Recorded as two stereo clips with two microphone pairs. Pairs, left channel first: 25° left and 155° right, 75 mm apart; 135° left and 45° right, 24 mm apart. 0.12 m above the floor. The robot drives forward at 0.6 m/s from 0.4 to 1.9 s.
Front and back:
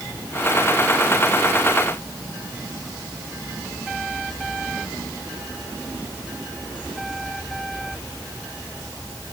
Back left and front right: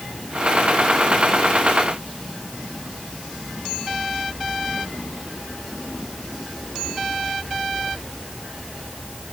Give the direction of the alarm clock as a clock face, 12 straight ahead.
I don't hear an alarm clock.